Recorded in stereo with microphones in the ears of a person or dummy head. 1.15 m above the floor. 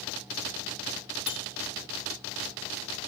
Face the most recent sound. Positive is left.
turn(degrees=30)  # may be behind; listen again after turning